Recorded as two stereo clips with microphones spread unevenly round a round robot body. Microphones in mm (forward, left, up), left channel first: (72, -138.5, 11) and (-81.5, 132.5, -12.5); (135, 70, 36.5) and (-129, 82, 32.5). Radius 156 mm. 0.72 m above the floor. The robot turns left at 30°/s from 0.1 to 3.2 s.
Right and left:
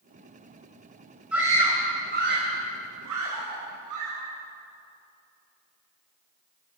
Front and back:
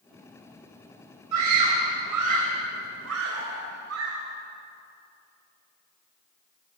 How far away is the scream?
About 4 m.